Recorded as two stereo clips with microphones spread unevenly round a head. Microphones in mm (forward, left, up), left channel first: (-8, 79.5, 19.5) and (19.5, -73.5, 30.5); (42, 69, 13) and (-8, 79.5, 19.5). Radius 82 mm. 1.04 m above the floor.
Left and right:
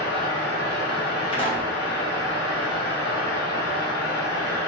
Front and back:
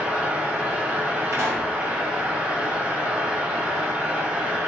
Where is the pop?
155° left, 1.4 m.